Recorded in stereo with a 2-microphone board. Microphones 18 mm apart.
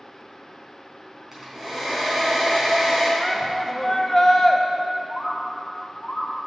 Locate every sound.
1.3 s a hair dryer: 20° right (ahead or behind), 2.5 m
3.2 s a shout: 30° left (ahead or behind), 0.6 m
5.1 s a bird: 30° left (ahead or behind), 1.2 m